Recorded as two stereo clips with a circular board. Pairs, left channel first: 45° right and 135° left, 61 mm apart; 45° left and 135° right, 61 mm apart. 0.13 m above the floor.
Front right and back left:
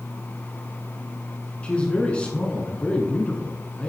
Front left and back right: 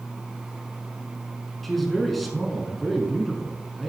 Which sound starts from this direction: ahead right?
A man speaking, at 1.6 s.